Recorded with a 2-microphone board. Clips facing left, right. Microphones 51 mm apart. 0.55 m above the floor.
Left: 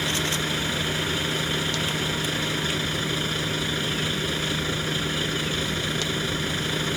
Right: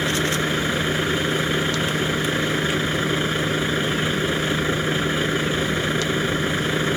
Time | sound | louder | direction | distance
0.0 | a vehicle | right 5 dB | 25° right (ahead or behind) | ?